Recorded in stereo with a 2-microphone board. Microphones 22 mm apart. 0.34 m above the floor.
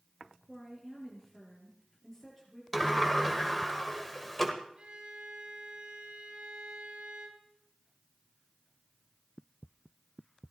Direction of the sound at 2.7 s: 15° left (ahead or behind).